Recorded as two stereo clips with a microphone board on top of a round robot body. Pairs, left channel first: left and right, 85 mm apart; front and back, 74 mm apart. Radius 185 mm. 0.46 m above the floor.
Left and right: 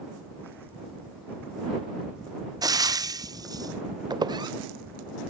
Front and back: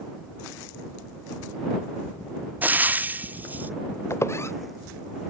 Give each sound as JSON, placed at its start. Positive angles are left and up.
{"t": 2.6, "sound": "frying", "azimuth_deg": -115}
{"t": 4.1, "sound": "a squeak", "azimuth_deg": -55}